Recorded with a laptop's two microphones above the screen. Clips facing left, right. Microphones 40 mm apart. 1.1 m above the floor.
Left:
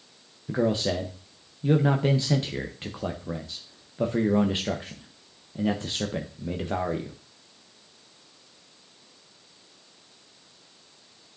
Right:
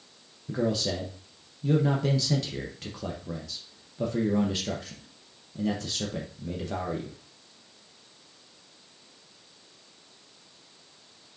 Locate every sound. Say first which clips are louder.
0.5 s a man speaking: left 3 dB; 30° left (ahead or behind), 0.7 m